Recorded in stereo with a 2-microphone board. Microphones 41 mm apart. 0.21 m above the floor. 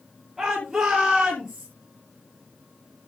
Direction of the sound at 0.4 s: 10° right (ahead or behind).